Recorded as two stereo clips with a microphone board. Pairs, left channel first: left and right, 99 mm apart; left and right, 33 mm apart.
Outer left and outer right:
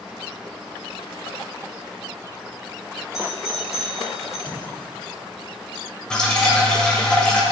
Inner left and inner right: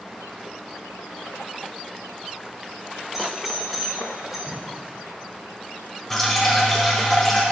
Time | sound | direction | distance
3.1 | a doorbell | 5° right (ahead or behind) | 2 m
4.5 | tape being pulled | 10° left (ahead or behind) | 2.5 m
6.1 | dripping | 10° left (ahead or behind) | 1.5 m